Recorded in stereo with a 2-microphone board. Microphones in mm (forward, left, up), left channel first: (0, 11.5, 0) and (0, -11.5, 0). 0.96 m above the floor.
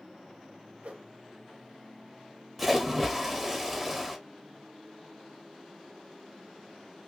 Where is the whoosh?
75° right (ahead or behind), 1.0 m.